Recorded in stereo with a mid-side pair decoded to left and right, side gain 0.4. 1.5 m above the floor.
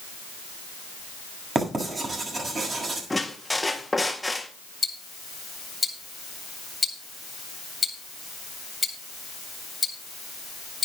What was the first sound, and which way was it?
Writing, 40° right.